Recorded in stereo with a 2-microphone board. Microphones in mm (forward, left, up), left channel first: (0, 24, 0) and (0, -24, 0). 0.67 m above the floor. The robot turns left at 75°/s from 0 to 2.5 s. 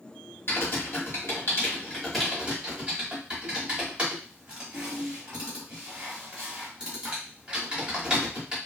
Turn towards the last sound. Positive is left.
turn(degrees=-20)  # may be behind; listen again after turning